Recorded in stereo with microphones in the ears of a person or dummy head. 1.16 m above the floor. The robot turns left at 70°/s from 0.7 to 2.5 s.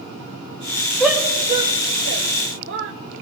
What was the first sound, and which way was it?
A shout, centre (ahead or behind).